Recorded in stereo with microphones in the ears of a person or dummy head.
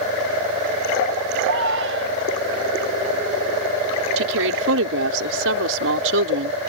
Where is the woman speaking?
75° right (ahead or behind).